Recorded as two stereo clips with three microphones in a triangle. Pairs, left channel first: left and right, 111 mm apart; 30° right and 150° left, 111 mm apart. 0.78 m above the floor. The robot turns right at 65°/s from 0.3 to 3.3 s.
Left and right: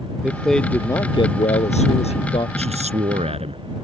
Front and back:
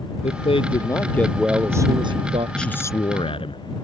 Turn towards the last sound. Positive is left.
turn(degrees=-65)